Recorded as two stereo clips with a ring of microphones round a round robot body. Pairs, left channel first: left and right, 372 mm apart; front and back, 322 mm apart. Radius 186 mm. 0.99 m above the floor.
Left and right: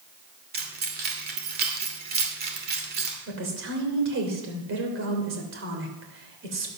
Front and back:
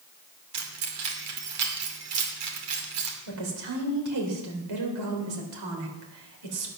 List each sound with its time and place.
0.5 s keys jangling: 155° right, 2.5 m
3.3 s a woman speaking: 150° right, 3.5 m